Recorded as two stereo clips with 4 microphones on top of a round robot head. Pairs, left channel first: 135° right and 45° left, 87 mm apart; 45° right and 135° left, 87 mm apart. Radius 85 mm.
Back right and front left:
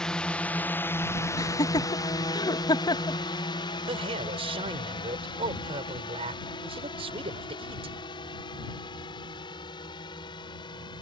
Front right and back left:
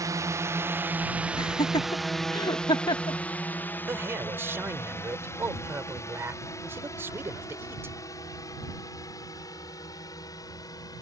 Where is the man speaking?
65° left.